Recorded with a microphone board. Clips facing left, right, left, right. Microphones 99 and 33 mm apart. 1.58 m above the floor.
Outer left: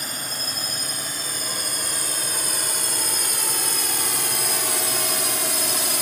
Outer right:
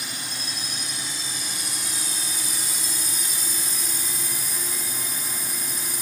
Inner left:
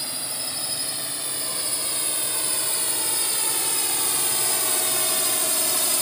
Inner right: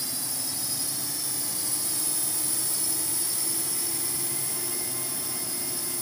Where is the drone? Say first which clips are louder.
Outer left 3 dB, inner left 4 dB; 45° left (ahead or behind); by 6.0 s 75° left (ahead or behind).